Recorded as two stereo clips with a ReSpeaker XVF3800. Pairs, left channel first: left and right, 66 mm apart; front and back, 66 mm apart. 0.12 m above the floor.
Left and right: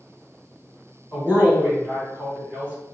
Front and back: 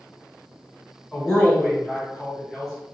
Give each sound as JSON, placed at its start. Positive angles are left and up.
{"t": 1.1, "sound": "a woman speaking", "azimuth_deg": 70, "distance_m": 1.7}